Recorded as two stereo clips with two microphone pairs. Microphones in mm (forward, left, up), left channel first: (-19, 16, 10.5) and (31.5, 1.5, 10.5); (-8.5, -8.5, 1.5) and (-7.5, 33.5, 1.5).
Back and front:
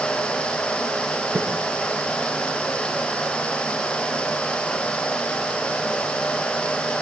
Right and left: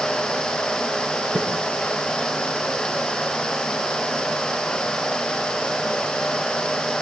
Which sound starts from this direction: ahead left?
A snare drum, at 1.4 s.